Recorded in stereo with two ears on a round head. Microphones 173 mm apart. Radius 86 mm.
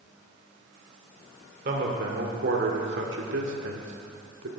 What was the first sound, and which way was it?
A man speaking, 45° right (ahead or behind).